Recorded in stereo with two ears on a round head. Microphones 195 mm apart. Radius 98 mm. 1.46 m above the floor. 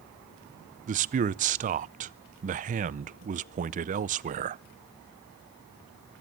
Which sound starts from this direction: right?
A man speaking, at 0.9 s.